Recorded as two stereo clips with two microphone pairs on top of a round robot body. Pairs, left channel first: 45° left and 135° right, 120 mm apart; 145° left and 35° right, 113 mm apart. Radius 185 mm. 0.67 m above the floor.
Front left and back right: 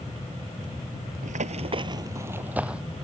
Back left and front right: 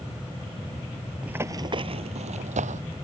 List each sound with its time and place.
1.2 s running footsteps: 115° right; by 2.8 s 50° right